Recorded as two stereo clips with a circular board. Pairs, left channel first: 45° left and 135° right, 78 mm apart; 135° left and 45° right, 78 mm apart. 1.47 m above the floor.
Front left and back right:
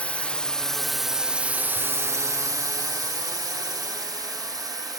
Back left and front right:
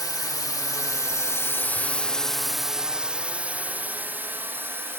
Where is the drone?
115° left; by 5.0 s 105° right.